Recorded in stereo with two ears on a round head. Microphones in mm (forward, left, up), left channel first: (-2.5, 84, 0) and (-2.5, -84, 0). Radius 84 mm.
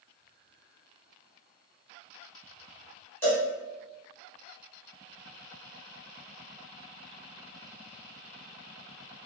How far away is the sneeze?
No sneeze in this recording.